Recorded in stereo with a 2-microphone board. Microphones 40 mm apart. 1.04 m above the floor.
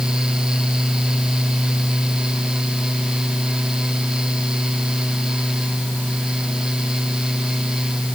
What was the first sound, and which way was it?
Only background noise.